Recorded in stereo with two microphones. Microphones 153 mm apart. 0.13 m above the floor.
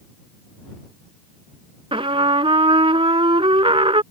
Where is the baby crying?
I don't hear a baby crying.